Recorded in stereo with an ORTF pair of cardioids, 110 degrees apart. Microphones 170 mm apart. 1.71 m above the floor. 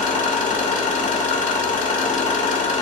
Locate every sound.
0.0 s an engine running: 50° left, 2 m